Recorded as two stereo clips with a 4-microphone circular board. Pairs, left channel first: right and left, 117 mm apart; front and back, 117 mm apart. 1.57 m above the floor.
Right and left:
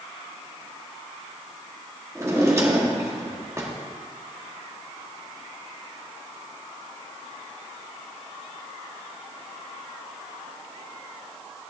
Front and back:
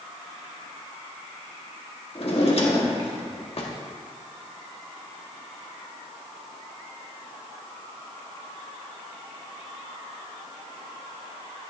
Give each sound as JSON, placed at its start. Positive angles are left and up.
{"t": 2.1, "sound": "a drawer", "azimuth_deg": 25, "distance_m": 1.7}